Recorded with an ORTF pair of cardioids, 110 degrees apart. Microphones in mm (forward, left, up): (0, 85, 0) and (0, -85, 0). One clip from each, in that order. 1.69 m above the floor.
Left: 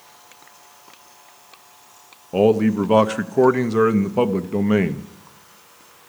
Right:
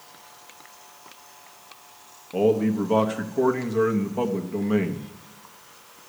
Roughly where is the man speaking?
Ahead left.